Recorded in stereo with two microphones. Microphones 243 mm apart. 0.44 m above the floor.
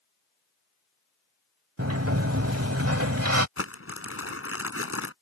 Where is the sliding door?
80° right.